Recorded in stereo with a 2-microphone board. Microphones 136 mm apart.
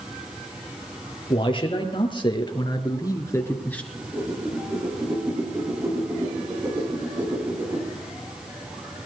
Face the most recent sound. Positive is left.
turn(degrees=-20)  # may be behind; listen again after turning